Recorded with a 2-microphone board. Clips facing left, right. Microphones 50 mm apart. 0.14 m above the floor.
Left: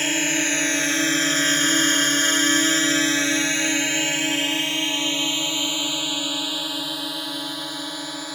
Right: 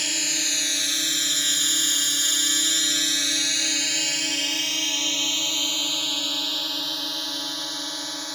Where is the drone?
30° left (ahead or behind); by 8.3 s 10° left (ahead or behind).